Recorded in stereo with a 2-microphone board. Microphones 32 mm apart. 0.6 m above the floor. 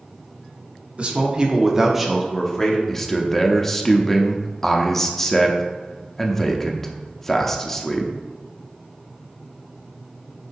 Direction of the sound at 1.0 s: 40° right (ahead or behind).